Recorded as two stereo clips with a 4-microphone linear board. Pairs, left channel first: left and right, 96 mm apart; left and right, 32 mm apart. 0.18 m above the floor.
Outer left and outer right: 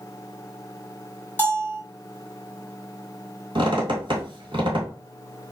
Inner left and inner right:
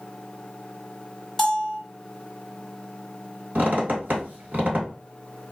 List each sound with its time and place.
1.4 s a bell: 15° left (ahead or behind), 0.7 m
3.5 s a squeak: 60° right (ahead or behind), 1.2 m